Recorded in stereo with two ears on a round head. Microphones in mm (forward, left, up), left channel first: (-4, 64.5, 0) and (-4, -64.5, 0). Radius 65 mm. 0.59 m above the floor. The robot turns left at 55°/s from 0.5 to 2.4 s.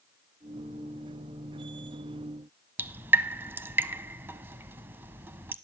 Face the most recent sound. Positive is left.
turn(degrees=-15)  # may be behind; listen again after turning